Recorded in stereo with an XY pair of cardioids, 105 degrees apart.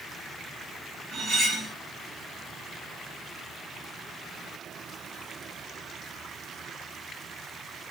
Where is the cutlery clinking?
55° right, 1.6 m.